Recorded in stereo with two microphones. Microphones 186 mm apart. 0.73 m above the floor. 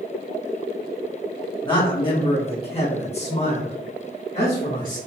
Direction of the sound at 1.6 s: 25° left (ahead or behind).